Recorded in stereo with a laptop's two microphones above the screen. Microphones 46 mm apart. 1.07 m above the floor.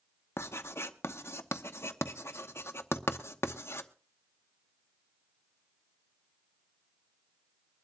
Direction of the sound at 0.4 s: 70° left (ahead or behind).